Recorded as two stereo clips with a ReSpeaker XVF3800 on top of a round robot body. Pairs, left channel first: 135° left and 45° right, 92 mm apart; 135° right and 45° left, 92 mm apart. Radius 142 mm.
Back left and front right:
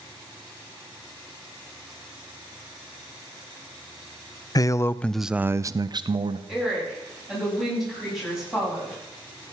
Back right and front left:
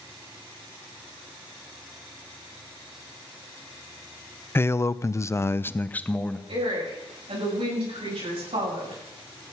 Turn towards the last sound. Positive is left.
turn(degrees=40)